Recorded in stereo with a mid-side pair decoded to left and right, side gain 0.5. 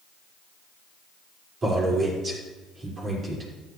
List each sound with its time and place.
1.6 s a man speaking: 40° right, 5 m